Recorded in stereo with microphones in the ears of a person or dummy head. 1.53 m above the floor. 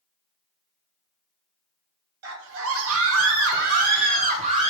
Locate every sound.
2.2 s a scream: 60° right (ahead or behind), 0.9 m; by 4.7 s 35° right (ahead or behind), 1.2 m